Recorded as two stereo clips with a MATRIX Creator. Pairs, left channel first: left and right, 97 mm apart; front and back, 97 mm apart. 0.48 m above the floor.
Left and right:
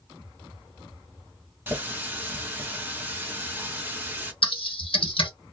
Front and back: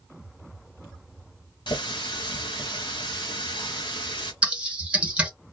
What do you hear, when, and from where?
1.7 s a running tap: 25° right, 0.9 m
4.4 s typing on a keyboard: 105° left, 0.7 m